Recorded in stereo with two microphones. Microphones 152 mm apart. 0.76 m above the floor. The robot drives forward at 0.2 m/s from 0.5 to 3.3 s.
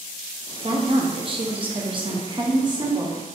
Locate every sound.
0.6 s a woman speaking: 35° right (ahead or behind), 0.5 m; by 3.2 s 25° right (ahead or behind), 0.7 m